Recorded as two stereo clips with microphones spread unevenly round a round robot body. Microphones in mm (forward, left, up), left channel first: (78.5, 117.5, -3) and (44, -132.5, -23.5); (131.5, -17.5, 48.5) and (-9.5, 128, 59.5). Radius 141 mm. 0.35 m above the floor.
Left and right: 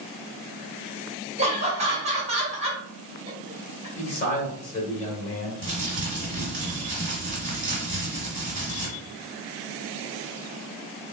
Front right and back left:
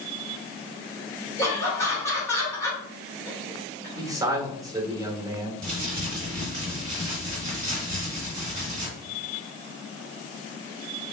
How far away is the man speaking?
About 1.2 m.